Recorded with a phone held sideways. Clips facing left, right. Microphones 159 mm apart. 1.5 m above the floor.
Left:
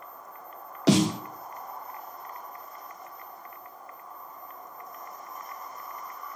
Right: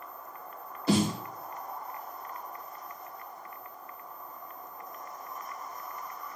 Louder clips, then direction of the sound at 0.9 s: Left 4 dB; 85° left.